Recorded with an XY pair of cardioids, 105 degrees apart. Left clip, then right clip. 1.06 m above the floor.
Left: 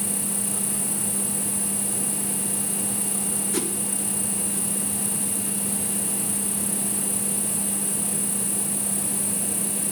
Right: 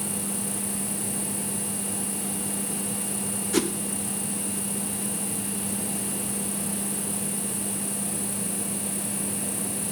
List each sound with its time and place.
0.0 s an insect: 30° left, 1.9 m
3.5 s a whoosh: 35° right, 0.6 m